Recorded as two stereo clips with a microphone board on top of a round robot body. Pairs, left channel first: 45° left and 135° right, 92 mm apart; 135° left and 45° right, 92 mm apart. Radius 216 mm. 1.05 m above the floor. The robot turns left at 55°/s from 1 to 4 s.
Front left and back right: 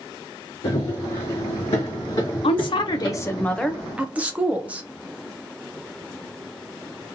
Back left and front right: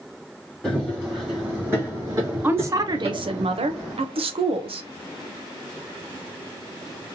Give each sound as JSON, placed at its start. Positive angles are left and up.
{"t": 0.6, "sound": "running footsteps", "azimuth_deg": 55, "distance_m": 3.0}
{"t": 2.4, "sound": "a woman speaking", "azimuth_deg": 25, "distance_m": 0.8}